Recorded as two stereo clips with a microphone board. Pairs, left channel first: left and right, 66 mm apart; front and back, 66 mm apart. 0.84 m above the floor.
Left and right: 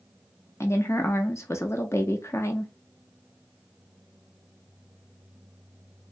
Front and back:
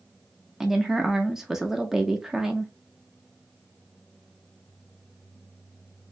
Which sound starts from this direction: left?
A woman speaking, at 0.6 s.